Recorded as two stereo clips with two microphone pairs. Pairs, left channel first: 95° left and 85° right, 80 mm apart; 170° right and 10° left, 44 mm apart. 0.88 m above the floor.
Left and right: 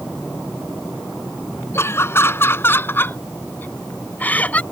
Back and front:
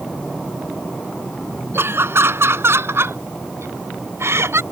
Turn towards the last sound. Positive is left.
turn(degrees=25)